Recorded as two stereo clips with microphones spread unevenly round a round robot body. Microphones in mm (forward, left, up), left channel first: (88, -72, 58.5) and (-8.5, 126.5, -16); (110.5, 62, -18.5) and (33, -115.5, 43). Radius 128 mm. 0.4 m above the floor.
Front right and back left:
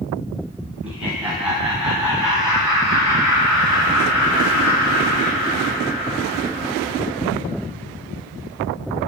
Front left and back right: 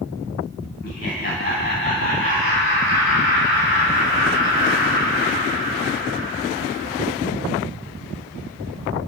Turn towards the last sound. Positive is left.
turn(degrees=25)